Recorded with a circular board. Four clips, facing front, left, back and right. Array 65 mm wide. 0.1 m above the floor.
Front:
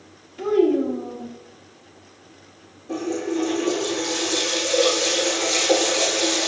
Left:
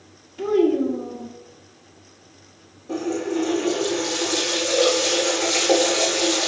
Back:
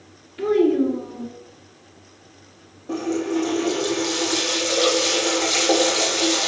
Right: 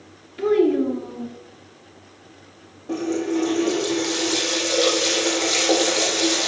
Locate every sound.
0.4 s a child speaking: 120° right, 1.4 m
2.9 s a running tap: 130° right, 3 m